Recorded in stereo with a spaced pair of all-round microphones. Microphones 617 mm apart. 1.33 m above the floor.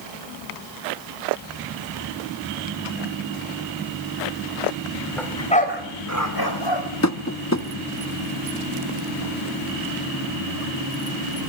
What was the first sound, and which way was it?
A dog barking, centre (ahead or behind).